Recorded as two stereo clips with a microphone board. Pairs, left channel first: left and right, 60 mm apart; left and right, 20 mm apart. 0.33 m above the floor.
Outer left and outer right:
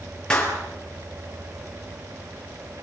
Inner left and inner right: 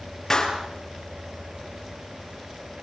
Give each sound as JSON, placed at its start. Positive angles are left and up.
{"t": 0.3, "sound": "a clap", "side_deg": 15, "distance_m": 5.5}